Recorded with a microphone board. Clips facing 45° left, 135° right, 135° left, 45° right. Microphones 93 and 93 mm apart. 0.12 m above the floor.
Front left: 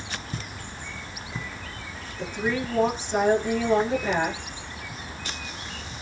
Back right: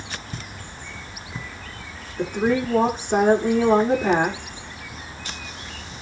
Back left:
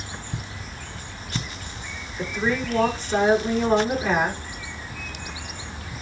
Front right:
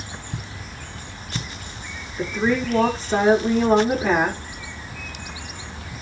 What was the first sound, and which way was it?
A woman speaking, 100° right.